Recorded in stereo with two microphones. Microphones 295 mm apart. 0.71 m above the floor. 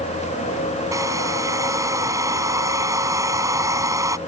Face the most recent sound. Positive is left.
turn(degrees=-10)  # may be behind; listen again after turning